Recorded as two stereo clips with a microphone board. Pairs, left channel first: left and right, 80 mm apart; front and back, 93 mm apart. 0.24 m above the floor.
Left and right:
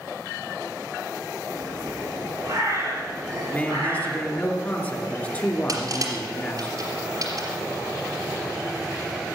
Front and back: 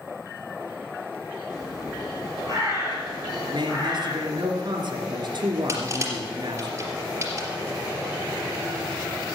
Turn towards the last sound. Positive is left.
turn(degrees=-125)